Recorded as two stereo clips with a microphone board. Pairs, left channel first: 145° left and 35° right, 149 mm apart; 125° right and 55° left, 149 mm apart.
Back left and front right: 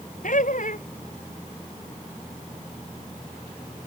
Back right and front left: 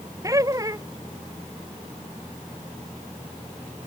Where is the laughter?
120° left.